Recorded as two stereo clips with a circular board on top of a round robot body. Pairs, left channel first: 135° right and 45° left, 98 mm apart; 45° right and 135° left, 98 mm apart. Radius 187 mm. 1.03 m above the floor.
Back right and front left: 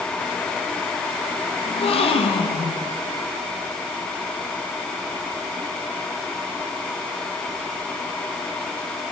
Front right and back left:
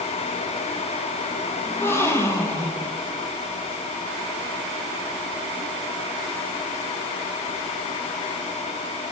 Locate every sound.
1.6 s a gasp: 110° right, 1.1 m